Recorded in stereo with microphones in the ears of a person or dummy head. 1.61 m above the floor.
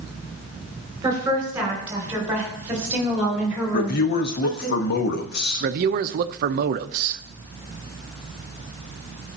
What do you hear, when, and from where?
1.0 s a woman speaking: 15° right (ahead or behind), 5 m; by 4.7 s centre (ahead or behind), 3 m
3.7 s a man speaking: 55° left (ahead or behind), 0.9 m
5.6 s a man speaking: 50° right (ahead or behind), 0.6 m